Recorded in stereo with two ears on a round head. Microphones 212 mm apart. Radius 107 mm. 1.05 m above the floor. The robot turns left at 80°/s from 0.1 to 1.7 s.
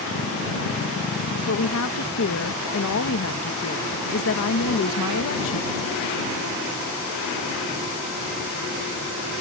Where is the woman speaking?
65° left (ahead or behind); by 5.8 s 60° left (ahead or behind).